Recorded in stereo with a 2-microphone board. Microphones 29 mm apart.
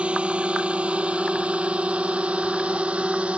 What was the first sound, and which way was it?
A drone, 45° right (ahead or behind).